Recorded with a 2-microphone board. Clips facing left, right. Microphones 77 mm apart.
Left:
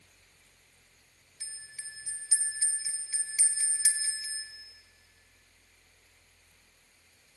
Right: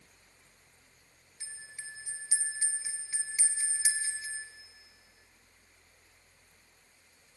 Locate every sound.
1.4 s a bell: 25° right (ahead or behind), 1.7 m